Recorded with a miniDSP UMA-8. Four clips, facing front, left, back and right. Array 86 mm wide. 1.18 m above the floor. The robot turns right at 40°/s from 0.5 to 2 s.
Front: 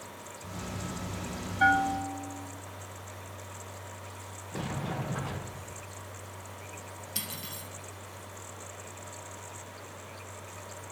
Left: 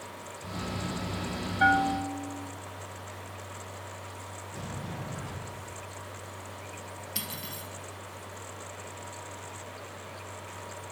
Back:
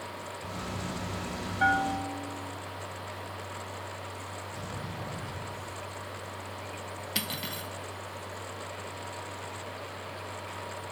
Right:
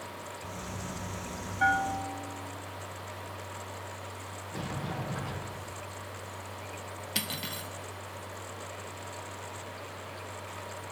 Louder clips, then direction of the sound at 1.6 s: Left 3 dB, front 2 dB; 60° left.